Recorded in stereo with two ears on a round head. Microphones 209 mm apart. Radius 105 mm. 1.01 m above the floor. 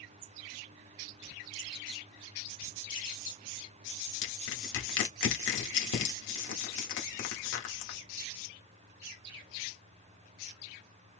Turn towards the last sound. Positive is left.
turn(degrees=55)  # may be behind; listen again after turning